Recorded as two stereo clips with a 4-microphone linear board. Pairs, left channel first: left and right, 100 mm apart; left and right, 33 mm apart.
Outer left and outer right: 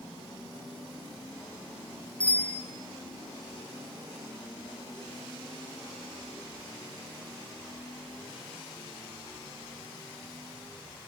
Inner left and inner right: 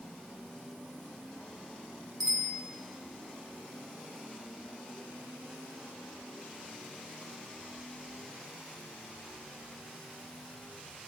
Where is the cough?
No cough in this recording.